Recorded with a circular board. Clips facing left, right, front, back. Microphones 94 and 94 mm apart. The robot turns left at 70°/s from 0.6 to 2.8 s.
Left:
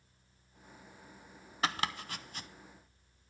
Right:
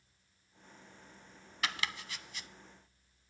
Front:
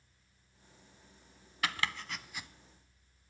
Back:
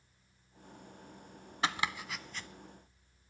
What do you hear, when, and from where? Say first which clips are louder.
1.6 s chopping: left 4 dB, back 2 dB; 130° left, 0.6 m; by 2.5 s 70° left, 0.6 m